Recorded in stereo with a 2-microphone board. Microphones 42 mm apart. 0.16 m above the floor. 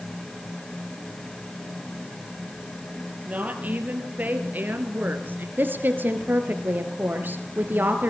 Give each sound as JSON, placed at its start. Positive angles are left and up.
{"t": 3.2, "sound": "a woman speaking", "side_deg": -40, "distance_m": 4.0}
{"t": 5.6, "sound": "a woman speaking", "side_deg": -50, "distance_m": 3.0}